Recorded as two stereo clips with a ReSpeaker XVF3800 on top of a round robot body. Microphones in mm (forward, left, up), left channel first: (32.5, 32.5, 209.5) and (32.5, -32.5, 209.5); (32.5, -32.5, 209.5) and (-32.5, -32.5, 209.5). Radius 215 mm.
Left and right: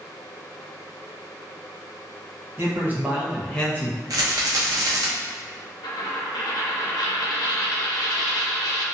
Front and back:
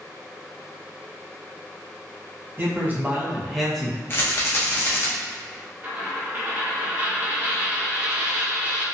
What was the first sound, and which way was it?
A man speaking, 130° right.